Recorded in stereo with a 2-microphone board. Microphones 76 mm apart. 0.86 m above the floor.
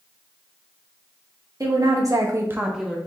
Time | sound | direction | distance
1.6 | a woman speaking | 50° right (ahead or behind) | 1.5 m